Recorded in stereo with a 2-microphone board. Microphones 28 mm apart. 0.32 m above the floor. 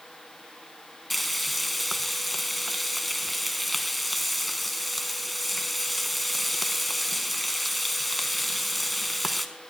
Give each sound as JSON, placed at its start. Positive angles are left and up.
{"t": 1.1, "sound": "frying", "side_deg": 0, "distance_m": 0.8}